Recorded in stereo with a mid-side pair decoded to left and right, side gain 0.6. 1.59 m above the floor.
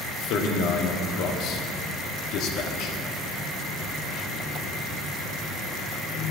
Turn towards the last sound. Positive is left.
turn(degrees=70)